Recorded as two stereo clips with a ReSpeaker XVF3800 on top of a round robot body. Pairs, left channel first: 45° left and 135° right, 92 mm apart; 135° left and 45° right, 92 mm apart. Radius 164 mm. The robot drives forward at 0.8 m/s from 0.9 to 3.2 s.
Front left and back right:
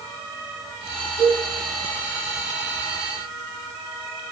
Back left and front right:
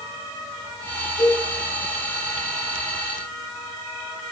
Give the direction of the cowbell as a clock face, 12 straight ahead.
9 o'clock.